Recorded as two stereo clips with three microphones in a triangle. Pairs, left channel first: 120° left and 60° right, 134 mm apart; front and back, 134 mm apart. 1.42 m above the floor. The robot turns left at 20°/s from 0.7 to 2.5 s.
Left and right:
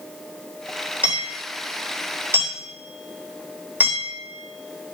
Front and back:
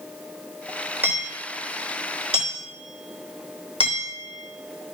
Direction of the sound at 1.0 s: 105° right.